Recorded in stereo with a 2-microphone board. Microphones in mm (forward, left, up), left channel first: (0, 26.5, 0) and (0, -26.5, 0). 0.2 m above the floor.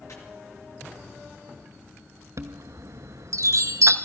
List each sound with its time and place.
0.1 s chopping: 65° left (ahead or behind), 3 m
2.4 s a chime: 70° right (ahead or behind), 0.8 m